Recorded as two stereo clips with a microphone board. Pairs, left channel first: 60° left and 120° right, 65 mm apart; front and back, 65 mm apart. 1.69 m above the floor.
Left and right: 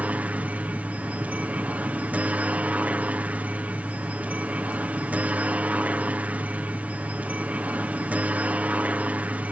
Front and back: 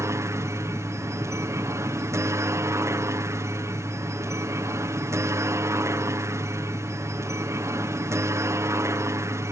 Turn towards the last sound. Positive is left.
turn(degrees=180)